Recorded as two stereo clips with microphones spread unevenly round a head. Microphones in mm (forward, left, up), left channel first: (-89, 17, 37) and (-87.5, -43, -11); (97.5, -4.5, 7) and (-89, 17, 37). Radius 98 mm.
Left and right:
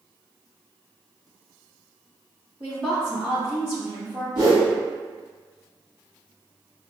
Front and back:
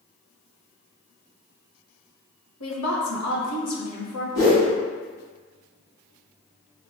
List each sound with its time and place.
2.6 s a woman speaking: 5° right, 0.8 m
4.3 s a whoosh: 10° right, 0.9 m